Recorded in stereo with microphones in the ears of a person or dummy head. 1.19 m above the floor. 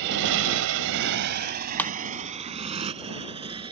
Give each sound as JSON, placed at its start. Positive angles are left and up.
{"t": 0.0, "sound": "a motorcycle", "side_deg": -65}
{"t": 1.8, "sound": "breaking glass", "side_deg": 10}